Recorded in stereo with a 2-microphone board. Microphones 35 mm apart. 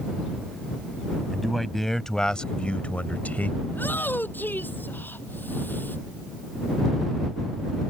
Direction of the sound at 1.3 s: Centre (ahead or behind).